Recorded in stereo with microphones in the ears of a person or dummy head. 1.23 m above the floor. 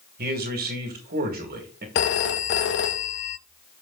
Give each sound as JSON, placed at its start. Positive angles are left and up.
{"t": 0.2, "sound": "a man speaking", "side_deg": -45, "distance_m": 2.0}
{"t": 1.9, "sound": "a phone ringing", "side_deg": 65, "distance_m": 0.8}